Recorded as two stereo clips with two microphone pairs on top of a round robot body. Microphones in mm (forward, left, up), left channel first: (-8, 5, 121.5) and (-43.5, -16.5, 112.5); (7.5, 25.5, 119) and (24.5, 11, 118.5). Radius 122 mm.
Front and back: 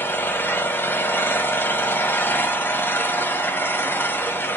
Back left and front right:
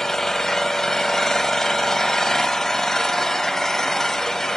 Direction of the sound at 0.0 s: 70° left.